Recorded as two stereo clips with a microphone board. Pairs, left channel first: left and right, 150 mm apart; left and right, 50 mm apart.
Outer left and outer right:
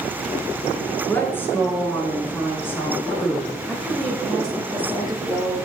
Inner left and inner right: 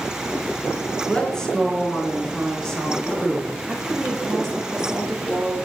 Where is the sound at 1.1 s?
15° left (ahead or behind), 4.5 m.